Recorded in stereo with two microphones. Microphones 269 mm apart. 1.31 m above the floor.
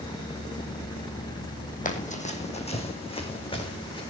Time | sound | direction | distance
1.9 | running footsteps | 30° left (ahead or behind) | 2.5 m